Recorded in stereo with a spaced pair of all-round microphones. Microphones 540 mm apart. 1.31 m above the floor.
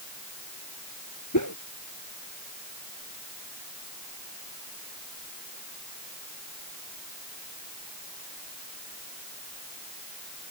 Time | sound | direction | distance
1.3 | a whoosh | 30° left (ahead or behind) | ?